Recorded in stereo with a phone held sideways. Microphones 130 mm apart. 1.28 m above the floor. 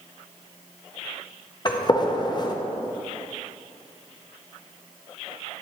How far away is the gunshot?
About 0.7 m.